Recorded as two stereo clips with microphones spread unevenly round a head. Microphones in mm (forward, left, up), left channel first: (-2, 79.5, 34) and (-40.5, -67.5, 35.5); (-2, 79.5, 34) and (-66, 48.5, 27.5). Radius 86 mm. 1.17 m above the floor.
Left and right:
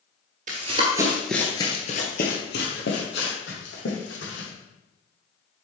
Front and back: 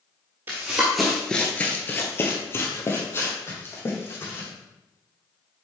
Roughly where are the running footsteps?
Right.